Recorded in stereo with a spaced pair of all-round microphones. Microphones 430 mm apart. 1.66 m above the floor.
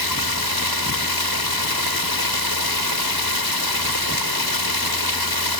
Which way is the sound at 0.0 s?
60° left (ahead or behind).